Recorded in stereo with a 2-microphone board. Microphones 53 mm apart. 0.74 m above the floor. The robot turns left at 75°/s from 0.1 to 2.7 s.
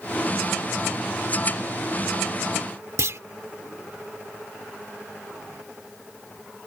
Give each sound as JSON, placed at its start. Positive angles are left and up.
{"t": 3.0, "sound": "a clunk", "side_deg": -65}